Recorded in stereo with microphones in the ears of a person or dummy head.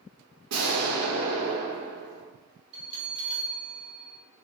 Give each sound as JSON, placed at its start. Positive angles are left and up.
{"t": 0.5, "sound": "an explosion", "side_deg": -80, "distance_m": 0.9}
{"t": 2.7, "sound": "a bell", "side_deg": -35, "distance_m": 0.9}